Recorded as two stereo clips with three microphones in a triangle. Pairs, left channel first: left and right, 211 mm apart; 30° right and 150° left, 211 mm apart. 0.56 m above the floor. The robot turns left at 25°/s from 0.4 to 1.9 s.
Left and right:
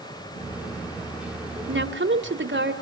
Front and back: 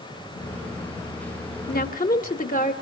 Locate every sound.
1.7 s a woman speaking: 65° right, 2 m; by 2.7 s 75° right, 2 m